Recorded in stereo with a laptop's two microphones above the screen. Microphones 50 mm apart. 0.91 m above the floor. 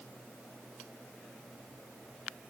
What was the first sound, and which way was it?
Only background noise.